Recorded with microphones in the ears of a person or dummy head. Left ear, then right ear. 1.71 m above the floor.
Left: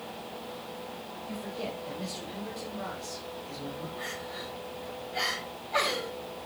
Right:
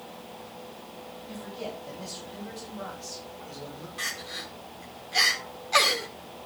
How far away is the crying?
About 3.5 m.